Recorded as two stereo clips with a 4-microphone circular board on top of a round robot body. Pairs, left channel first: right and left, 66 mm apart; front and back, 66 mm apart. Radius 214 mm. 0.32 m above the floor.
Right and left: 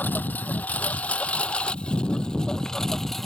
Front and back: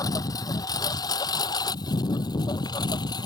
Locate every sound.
0.0 s a lawn mower: 25° right; by 3.3 s 5° right